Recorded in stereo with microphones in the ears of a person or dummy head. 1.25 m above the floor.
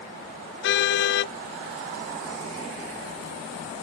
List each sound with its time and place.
0.6 s a car horn: 65° left (ahead or behind)